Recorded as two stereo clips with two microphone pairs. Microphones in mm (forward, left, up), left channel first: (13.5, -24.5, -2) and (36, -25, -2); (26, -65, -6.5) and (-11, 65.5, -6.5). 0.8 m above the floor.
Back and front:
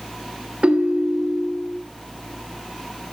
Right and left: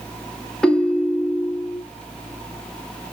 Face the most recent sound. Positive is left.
turn(degrees=10)